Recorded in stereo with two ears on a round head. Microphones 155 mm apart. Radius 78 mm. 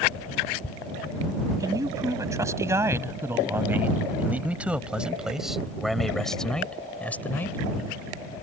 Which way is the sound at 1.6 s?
20° right (ahead or behind).